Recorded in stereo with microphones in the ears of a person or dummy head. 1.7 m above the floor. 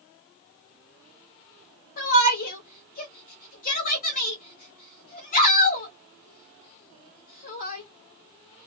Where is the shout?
55° left (ahead or behind), 1.4 m.